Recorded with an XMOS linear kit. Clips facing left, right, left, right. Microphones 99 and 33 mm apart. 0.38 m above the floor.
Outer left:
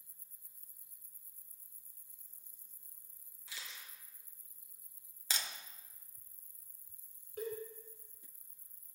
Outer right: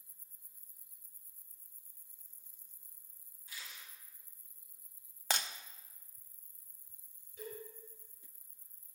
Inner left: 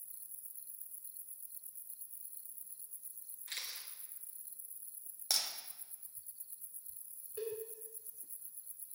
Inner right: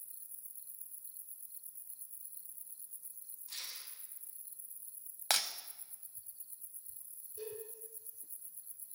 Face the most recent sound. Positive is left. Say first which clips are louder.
# outer left 6 dB, inner left 5 dB
turn(degrees=60)  # may be behind; listen again after turning